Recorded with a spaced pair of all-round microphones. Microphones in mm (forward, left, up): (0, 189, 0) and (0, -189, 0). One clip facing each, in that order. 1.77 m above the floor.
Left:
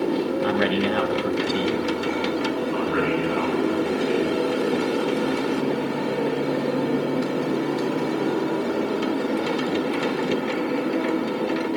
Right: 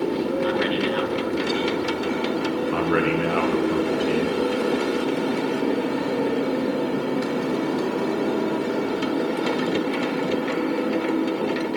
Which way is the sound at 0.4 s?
70° left (ahead or behind).